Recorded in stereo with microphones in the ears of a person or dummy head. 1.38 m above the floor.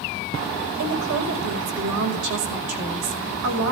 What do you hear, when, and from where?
0.8 s a woman speaking: 75° right (ahead or behind), 5.5 m